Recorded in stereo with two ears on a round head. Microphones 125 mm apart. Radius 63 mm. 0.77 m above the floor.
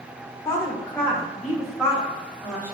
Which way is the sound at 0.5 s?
20° left (ahead or behind).